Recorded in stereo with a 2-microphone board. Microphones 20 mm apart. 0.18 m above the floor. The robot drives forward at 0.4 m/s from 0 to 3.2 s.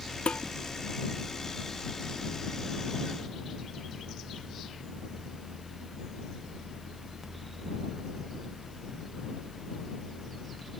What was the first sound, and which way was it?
Dishes clattering, 75° left (ahead or behind).